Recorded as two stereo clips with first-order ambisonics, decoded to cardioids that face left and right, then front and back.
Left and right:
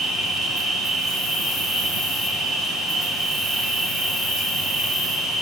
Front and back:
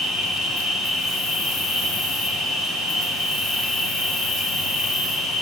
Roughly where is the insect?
Ahead left.